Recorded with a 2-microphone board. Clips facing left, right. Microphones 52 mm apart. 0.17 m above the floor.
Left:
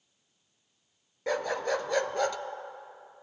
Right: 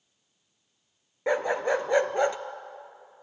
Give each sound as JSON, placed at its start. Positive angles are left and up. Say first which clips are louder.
{"t": 1.3, "sound": "a dog barking", "louder": "right 4 dB", "side_deg": -25, "distance_m": 0.8}